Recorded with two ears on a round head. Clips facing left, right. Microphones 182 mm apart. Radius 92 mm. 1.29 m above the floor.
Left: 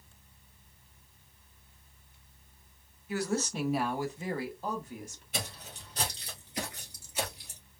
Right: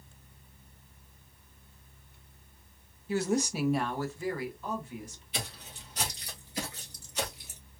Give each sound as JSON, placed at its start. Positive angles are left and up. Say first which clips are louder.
{"t": 3.1, "sound": "a woman speaking", "louder": "right 3 dB", "side_deg": -25, "distance_m": 0.6}
{"t": 5.3, "sound": "footsteps", "louder": "left 1 dB", "side_deg": 40, "distance_m": 1.8}